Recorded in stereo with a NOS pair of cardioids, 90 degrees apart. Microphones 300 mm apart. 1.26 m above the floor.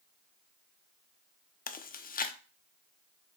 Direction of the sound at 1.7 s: 30° left.